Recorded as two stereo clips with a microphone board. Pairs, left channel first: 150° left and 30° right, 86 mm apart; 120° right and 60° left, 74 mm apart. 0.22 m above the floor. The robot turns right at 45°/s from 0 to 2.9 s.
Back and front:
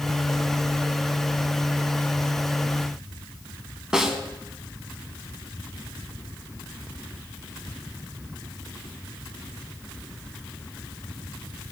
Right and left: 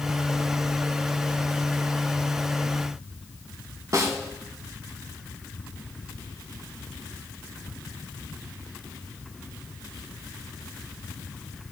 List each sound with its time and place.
3.9 s a snare drum: 50° left, 1.4 m